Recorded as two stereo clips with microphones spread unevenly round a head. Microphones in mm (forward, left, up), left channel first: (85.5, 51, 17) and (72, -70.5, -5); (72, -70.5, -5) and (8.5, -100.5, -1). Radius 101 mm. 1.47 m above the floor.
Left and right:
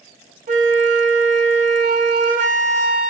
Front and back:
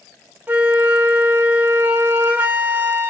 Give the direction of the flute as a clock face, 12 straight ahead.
3 o'clock.